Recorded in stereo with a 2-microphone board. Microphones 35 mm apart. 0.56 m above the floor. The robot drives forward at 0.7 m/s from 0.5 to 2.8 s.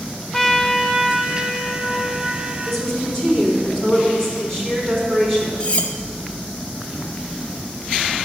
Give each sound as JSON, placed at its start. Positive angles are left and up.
{"t": 0.3, "sound": "a trumpet", "side_deg": 15, "distance_m": 0.6}
{"t": 2.6, "sound": "a woman speaking", "side_deg": 10, "distance_m": 4.0}
{"t": 5.6, "sound": "cutlery clinking", "side_deg": 45, "distance_m": 0.5}